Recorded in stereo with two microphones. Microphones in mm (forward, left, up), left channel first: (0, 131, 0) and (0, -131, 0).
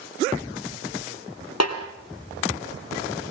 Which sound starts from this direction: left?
A snare drum, at 1.6 s.